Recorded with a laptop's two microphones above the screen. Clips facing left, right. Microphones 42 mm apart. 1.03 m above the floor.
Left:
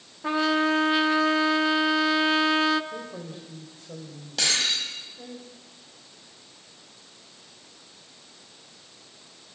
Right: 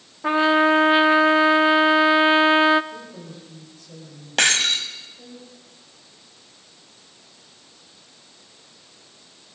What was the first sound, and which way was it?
A trumpet, 25° right (ahead or behind).